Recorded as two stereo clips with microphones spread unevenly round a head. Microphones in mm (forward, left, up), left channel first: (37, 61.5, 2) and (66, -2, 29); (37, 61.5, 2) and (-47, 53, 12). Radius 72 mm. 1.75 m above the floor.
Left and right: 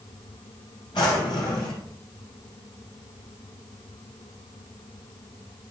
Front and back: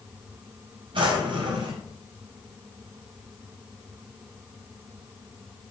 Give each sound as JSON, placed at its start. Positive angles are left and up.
{"t": 0.9, "sound": "a drawer", "azimuth_deg": 180, "distance_m": 4.5}